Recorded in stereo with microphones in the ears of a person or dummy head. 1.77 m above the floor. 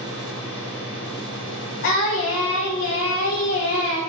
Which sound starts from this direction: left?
Singing, at 1.8 s.